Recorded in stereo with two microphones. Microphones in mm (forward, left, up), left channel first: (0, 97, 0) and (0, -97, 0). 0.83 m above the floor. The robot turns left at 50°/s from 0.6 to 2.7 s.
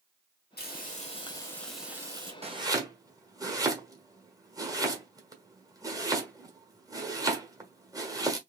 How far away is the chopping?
About 1.2 m.